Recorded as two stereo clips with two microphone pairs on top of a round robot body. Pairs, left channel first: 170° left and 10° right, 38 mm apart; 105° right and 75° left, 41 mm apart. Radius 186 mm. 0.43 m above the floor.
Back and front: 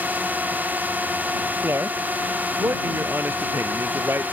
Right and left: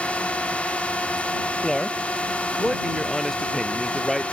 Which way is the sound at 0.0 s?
50° right.